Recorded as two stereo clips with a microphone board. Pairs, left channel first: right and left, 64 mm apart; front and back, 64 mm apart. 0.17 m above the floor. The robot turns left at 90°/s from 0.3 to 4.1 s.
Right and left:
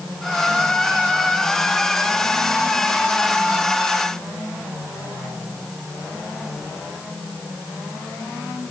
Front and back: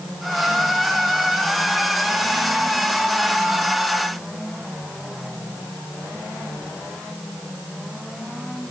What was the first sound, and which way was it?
Only background noise.